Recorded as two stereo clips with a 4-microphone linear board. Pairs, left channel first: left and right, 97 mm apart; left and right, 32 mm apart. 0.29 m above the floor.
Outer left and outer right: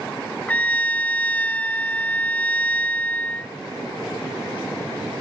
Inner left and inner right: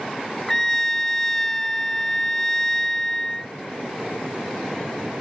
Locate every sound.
0.5 s a trumpet: 15° left (ahead or behind)